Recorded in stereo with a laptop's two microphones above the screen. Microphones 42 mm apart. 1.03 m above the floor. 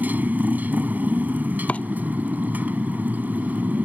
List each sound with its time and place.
0.0 s a motorcycle: 45° right (ahead or behind)
1.7 s chopping: 35° left (ahead or behind)